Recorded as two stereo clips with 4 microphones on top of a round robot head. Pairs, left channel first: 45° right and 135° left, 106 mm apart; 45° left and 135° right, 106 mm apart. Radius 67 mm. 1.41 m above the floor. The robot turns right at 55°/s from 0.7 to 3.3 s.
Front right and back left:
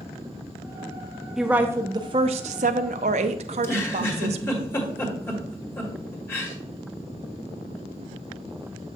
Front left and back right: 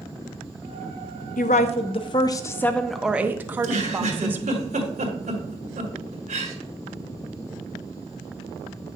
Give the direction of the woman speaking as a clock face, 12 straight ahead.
10 o'clock.